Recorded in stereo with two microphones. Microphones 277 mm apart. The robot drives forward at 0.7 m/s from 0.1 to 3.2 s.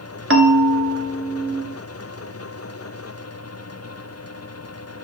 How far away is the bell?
About 0.8 m.